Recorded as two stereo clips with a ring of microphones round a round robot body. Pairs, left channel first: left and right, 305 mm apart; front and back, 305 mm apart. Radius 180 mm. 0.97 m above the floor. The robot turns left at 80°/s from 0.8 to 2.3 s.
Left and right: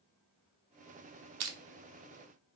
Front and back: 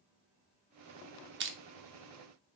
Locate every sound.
1.4 s crushing: 125° right, 0.8 m; by 1.6 s 140° right, 0.8 m